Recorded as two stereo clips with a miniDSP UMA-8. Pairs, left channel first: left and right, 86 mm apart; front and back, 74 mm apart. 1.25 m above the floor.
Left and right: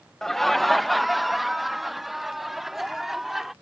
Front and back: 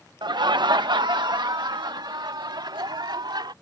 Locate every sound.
0.2 s laughter: 175° left; by 3.5 s 175° right